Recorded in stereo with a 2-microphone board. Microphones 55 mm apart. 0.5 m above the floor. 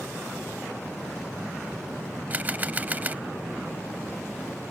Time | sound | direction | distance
2.3 | a camera shutter | 30° right (ahead or behind) | ?